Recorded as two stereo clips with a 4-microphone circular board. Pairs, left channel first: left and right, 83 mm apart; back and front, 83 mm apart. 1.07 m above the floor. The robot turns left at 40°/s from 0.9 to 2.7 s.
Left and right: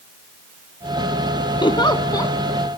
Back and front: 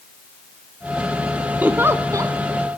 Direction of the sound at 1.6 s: 70° left.